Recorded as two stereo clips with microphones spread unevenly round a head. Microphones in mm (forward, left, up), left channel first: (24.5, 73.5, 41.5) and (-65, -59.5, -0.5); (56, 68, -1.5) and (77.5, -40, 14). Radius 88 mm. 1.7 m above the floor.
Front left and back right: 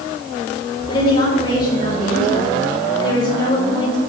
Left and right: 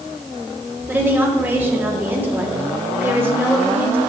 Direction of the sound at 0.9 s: 10° right.